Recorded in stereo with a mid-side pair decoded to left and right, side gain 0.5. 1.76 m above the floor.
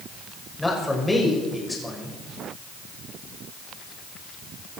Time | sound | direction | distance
0.6 | a man speaking | 10° left | 6.5 m